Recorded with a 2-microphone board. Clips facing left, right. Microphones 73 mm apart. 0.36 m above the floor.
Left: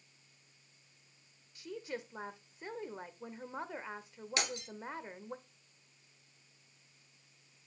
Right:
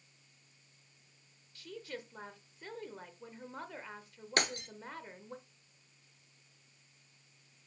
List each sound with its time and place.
1.6 s a woman speaking: 20° left (ahead or behind), 0.8 m
4.4 s breaking glass: 55° right (ahead or behind), 0.9 m